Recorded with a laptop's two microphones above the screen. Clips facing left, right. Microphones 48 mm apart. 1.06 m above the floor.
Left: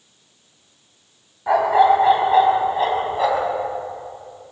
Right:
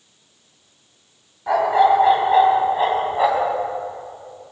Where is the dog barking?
10° left (ahead or behind), 3 m; by 3.5 s 15° right (ahead or behind), 3.5 m.